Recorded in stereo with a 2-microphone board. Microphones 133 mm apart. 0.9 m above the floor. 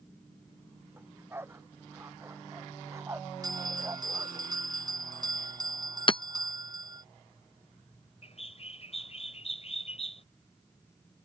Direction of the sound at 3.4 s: 30° right (ahead or behind).